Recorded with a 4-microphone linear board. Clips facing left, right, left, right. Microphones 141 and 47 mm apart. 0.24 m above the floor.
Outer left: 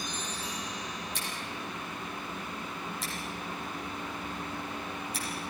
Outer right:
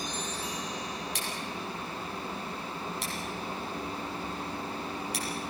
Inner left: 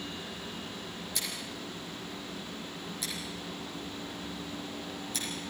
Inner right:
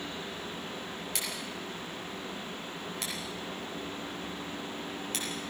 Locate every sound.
1.1 s scissors: 75° right (ahead or behind), 7 m